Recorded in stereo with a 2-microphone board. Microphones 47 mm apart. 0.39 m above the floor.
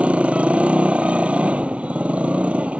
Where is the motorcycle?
25° right (ahead or behind).